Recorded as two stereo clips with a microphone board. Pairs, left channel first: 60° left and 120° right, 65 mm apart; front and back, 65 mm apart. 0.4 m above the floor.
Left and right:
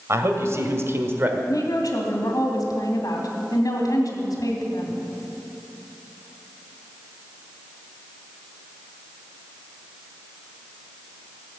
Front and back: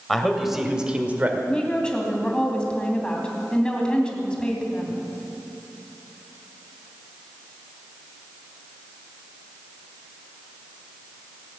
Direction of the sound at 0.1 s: 85° right.